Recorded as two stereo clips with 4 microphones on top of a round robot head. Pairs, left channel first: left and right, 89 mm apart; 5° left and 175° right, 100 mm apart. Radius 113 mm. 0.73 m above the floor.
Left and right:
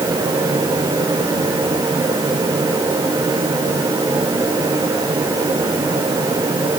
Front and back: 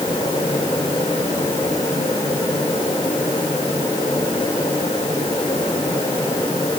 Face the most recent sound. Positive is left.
No sound to turn to.